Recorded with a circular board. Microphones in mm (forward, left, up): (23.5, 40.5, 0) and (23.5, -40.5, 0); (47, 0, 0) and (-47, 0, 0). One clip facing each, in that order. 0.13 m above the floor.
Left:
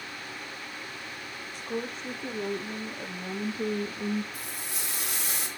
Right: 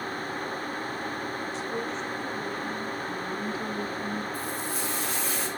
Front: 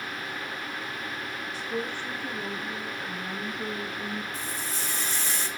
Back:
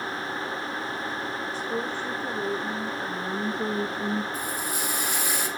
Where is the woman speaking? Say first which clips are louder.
Right 3 dB, back 1 dB; 125° left, 4 m; by 4.2 s 130° left, 2.5 m.